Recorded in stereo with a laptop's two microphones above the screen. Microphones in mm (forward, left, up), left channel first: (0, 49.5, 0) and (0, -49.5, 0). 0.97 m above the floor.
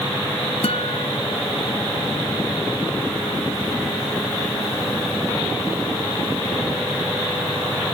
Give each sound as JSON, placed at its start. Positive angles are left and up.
{"t": 0.6, "sound": "a guitar", "side_deg": 70}